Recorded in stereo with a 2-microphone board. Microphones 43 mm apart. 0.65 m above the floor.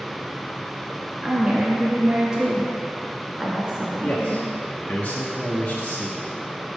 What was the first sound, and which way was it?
A woman speaking, 20° right (ahead or behind).